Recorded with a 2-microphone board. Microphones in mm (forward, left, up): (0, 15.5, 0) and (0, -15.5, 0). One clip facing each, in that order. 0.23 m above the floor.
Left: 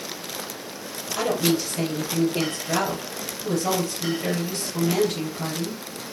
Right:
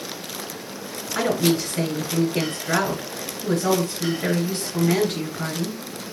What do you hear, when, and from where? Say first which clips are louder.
1.1 s a woman speaking: right 2 dB; 55° right (ahead or behind), 2 m